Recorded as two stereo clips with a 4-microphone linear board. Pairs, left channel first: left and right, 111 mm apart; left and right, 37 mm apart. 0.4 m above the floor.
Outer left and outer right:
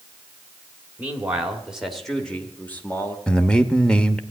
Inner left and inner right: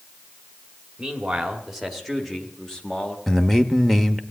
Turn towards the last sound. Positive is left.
turn(degrees=10)  # may be behind; listen again after turning